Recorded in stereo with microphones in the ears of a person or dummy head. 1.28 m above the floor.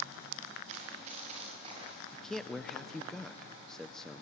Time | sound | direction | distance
0.7 | running footsteps | 35° right (ahead or behind) | 8.5 m
2.1 | a man speaking | 5° left (ahead or behind) | 0.6 m